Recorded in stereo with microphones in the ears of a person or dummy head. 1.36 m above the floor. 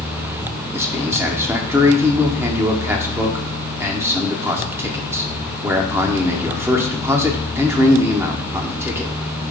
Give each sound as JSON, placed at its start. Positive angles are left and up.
{"t": 0.7, "sound": "a man speaking", "side_deg": -15, "distance_m": 0.7}